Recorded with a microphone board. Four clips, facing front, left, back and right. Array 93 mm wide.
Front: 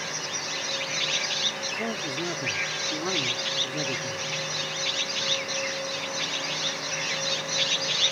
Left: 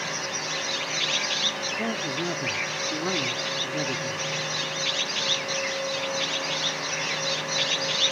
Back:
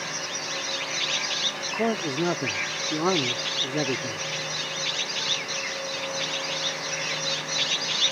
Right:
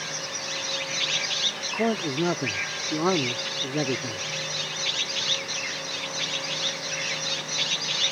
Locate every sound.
1.7 s a man speaking: 135° right